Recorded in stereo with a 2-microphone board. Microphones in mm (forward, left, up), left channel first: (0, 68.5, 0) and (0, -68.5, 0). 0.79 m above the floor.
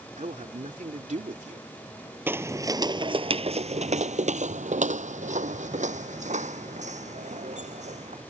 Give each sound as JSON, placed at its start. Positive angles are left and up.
{"t": 0.2, "sound": "a man speaking", "side_deg": -65}
{"t": 2.3, "sound": "footsteps", "side_deg": -15}